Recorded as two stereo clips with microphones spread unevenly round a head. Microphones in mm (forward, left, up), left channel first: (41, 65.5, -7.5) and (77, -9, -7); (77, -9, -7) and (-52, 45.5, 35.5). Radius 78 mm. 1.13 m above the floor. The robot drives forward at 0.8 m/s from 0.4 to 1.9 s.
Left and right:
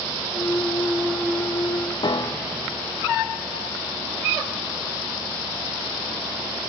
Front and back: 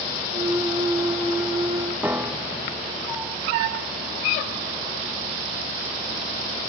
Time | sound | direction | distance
2.0 | a piano | 90° left | 0.5 m